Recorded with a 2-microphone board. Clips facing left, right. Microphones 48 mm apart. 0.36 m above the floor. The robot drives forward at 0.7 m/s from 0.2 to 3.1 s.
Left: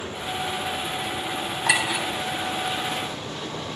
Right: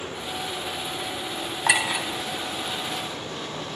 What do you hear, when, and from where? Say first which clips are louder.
1.7 s a clink: even; 20° right (ahead or behind), 1.5 m; by 2.1 s 15° right (ahead or behind), 1.8 m